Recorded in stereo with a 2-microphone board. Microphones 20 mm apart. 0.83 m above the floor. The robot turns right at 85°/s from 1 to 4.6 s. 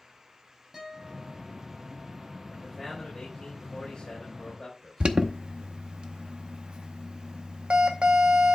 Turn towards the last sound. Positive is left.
turn(degrees=-70)  # may be behind; listen again after turning